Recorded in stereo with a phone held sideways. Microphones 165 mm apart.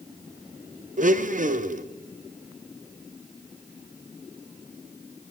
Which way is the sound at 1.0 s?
50° right (ahead or behind).